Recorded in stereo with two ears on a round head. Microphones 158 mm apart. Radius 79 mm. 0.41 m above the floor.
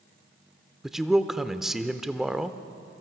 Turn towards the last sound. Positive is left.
turn(degrees=0)  # may be behind; listen again after turning